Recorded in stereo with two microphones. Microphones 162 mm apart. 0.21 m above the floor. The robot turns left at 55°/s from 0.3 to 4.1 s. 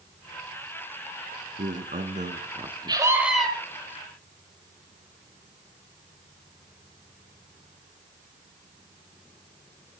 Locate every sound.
1.6 s a man speaking: 80° right, 2.5 m; by 3.1 s 160° right, 2.5 m
2.9 s a scream: 150° right, 7.5 m; by 3.5 s 175° left, 7.5 m